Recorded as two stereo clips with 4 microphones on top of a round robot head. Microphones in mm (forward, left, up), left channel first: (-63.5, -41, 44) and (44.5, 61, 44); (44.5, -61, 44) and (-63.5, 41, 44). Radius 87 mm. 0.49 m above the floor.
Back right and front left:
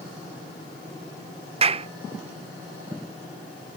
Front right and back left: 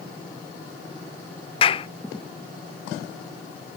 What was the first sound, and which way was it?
A clap, 5° left.